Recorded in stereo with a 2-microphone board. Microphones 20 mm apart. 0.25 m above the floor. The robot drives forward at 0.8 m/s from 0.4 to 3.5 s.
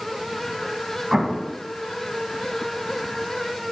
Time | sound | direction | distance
1.1 | an explosion | 25° right (ahead or behind) | 1.7 m